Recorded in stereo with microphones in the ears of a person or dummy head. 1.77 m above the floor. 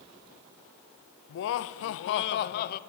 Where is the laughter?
60° left (ahead or behind), 0.7 m; by 2.8 s 50° left (ahead or behind), 0.8 m.